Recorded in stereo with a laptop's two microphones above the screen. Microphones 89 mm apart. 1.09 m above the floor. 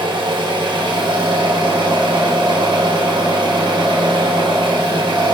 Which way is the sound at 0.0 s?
65° right (ahead or behind).